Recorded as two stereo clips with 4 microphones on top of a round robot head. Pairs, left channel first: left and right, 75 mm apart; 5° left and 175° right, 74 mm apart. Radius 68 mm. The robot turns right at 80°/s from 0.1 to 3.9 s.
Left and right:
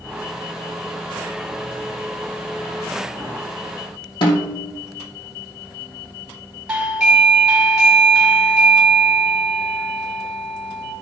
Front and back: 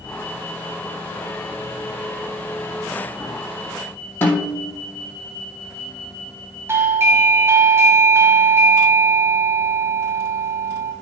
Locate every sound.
4.2 s a snare drum: 65° left, 2.5 m
6.7 s a doorbell: 160° right, 1.6 m